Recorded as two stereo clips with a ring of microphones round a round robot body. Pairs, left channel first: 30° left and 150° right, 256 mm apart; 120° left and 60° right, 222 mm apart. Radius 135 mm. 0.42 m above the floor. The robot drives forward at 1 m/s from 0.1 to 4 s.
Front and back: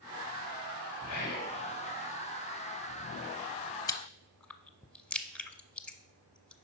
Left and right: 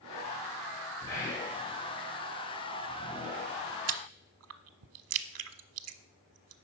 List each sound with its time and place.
1.1 s whispering: 40° left, 3.5 m; by 1.5 s 50° left, 3 m
3.9 s chewing: 45° right, 0.6 m; by 6.5 s 55° right, 0.5 m